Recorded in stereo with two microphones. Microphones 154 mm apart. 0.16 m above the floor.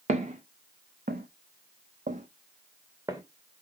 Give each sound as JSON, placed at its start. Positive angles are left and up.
{"t": 0.1, "sound": "footsteps", "side_deg": -50, "distance_m": 1.0}